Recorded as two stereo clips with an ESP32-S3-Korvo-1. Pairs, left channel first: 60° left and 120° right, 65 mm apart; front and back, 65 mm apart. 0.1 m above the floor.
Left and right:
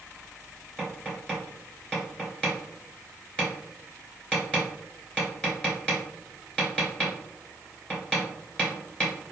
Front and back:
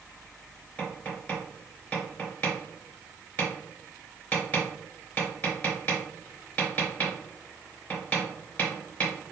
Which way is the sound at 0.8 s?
10° left.